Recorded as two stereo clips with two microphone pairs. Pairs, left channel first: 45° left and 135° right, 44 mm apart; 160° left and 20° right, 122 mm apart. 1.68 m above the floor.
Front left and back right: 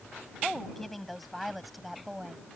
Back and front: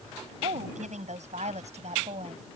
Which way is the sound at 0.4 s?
35° right.